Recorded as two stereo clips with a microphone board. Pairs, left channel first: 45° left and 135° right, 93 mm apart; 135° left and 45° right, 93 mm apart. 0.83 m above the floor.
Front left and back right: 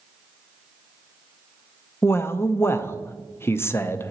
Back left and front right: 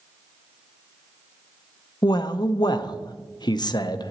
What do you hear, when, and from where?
2.0 s a man speaking: 105° left, 0.6 m